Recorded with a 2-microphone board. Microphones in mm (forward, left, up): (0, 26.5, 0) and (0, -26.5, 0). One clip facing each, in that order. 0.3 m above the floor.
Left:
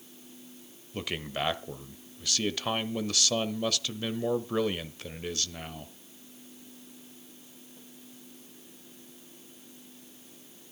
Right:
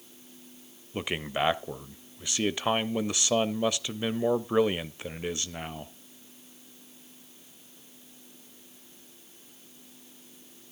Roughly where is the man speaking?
Right.